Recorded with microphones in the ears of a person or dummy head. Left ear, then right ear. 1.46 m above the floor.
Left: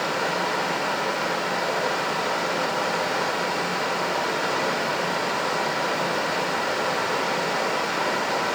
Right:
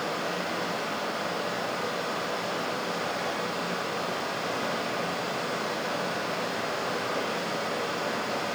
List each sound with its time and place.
0.0 s running water: 65° left (ahead or behind), 1.1 m